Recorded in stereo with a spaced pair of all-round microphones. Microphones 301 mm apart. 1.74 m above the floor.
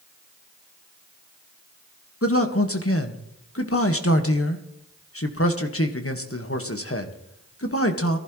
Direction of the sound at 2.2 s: 45° left (ahead or behind).